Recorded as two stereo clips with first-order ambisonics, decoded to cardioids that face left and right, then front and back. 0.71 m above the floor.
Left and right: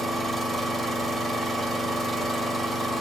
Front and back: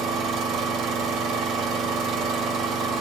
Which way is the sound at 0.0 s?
Straight behind.